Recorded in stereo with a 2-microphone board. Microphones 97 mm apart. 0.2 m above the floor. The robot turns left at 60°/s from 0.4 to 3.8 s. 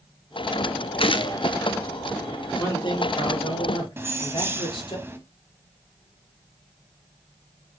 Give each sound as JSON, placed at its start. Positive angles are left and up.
{"t": 1.0, "sound": "a gunshot", "side_deg": 70, "distance_m": 0.7}
{"t": 2.6, "sound": "a man speaking", "azimuth_deg": 135, "distance_m": 4.5}
{"t": 4.0, "sound": "keys jangling", "side_deg": -25, "distance_m": 0.9}